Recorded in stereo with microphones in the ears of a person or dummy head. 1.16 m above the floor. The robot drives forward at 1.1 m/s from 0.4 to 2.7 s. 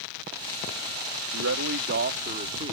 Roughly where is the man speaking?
Right.